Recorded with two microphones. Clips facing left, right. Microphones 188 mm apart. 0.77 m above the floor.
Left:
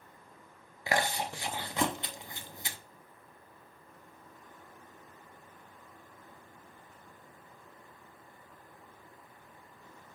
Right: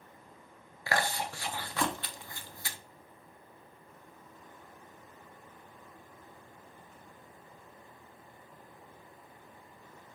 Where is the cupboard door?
No cupboard door in this recording.